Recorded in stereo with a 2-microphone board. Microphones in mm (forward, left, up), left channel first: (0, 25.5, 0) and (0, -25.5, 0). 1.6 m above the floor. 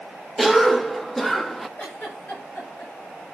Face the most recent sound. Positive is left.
turn(degrees=35)  # may be behind; listen again after turning